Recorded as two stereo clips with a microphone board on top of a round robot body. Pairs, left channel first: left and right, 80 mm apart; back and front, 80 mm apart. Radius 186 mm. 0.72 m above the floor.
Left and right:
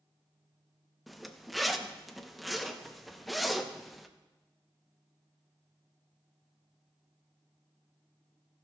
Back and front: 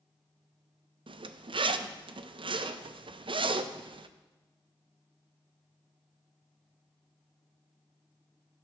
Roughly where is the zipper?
Ahead.